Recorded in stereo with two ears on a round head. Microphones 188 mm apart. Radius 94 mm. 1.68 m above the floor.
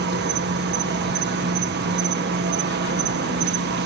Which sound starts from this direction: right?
An insect, at 0.0 s.